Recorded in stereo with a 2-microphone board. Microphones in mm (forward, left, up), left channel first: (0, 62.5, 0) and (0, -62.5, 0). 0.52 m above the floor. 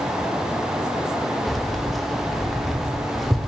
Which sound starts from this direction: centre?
Keys jangling, at 1.5 s.